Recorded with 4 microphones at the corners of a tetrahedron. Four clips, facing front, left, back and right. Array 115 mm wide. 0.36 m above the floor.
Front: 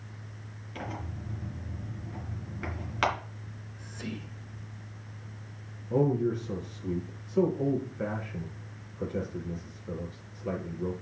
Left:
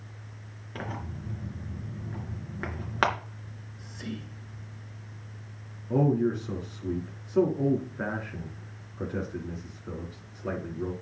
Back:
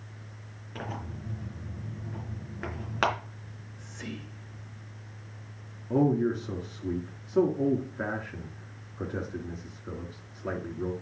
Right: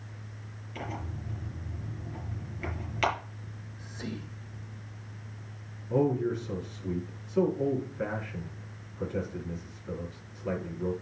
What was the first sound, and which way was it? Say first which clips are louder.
Tearing paper: left 1 dB, back 1 dB; 110° left.